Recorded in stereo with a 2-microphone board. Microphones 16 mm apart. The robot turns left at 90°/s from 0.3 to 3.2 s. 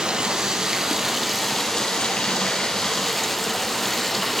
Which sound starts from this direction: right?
Running water, at 0.0 s.